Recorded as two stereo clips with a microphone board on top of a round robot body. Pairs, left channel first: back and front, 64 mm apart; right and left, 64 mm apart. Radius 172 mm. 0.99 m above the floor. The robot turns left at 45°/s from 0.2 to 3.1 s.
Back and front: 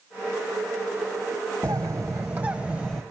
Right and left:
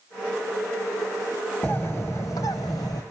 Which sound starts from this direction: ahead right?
A bird, at 1.6 s.